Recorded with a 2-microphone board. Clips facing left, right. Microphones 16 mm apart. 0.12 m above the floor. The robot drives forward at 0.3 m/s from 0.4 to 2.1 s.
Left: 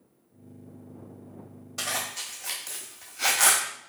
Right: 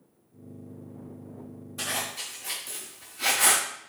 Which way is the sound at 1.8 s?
55° left (ahead or behind).